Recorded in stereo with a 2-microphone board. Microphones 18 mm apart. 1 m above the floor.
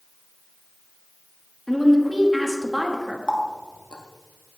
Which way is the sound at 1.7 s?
10° left (ahead or behind).